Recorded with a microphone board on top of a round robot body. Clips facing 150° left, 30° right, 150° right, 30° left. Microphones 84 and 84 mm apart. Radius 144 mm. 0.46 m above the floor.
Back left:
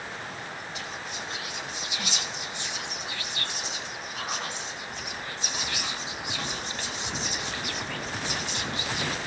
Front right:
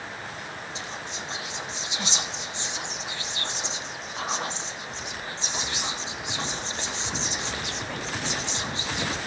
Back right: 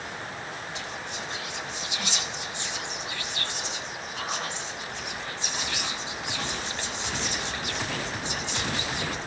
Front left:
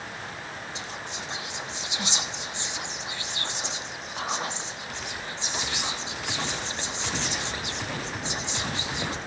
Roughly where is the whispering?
Ahead.